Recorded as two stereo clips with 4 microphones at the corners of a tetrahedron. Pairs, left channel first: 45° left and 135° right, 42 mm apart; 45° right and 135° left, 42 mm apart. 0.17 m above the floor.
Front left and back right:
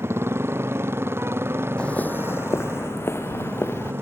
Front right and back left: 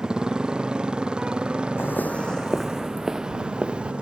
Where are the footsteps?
20° right; by 3.9 s 70° left.